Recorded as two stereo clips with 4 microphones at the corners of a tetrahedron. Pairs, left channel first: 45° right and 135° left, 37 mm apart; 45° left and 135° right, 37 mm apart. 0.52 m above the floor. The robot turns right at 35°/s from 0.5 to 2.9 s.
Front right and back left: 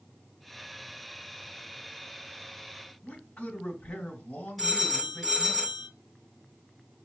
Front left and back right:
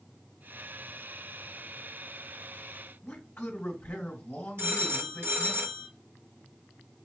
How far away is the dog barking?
I don't hear a dog barking.